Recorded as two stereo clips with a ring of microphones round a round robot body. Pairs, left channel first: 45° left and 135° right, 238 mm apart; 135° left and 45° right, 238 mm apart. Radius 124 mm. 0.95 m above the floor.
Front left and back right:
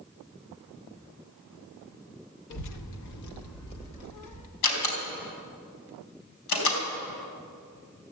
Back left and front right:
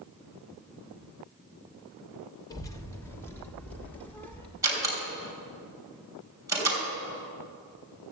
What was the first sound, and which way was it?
A child speaking, 60° left.